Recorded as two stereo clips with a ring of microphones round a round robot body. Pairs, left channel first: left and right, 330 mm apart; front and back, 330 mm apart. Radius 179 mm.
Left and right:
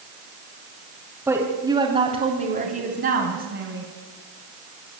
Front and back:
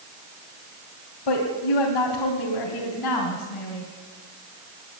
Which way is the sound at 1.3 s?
5° right.